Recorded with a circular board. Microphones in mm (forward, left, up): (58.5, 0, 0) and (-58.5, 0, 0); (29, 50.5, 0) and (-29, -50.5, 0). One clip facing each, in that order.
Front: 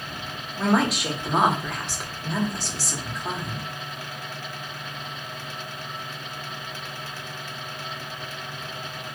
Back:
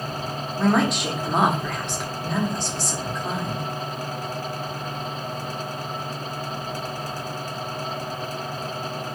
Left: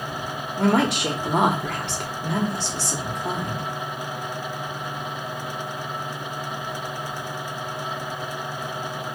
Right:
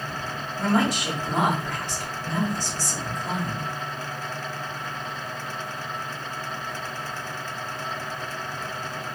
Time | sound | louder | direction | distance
0.6 | a woman speaking | back 1 dB, left 3 dB | 90° left | 0.9 m